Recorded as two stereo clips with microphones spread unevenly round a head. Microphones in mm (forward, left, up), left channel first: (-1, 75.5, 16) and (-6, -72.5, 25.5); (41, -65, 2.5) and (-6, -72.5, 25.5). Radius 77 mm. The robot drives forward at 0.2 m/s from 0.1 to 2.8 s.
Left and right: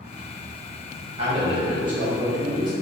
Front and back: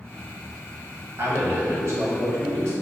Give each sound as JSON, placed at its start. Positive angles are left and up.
{"t": 1.2, "sound": "a man speaking", "azimuth_deg": -140, "distance_m": 1.4}